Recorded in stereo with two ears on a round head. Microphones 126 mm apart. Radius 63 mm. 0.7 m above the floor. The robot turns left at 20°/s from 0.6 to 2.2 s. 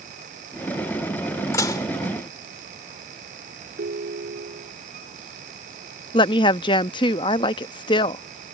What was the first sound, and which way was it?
Dishes clattering, 25° left (ahead or behind).